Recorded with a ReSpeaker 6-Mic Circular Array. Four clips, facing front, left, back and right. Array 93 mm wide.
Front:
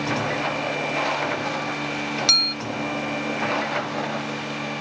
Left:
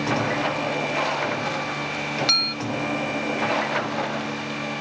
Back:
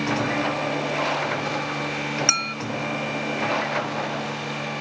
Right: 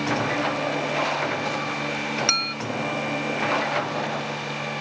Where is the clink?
155° right.